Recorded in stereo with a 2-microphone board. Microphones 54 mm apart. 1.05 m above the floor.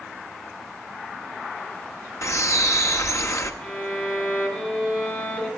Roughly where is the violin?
Left.